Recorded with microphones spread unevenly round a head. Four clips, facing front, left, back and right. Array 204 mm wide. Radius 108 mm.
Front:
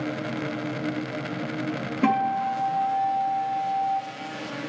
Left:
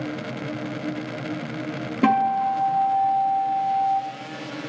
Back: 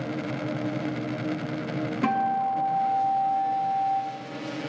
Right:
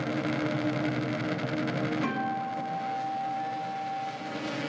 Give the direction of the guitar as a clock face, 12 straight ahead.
9 o'clock.